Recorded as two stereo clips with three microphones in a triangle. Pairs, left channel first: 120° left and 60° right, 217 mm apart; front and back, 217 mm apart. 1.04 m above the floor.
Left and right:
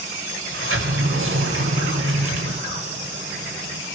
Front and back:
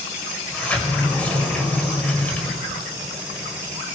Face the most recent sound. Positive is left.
turn(degrees=-85)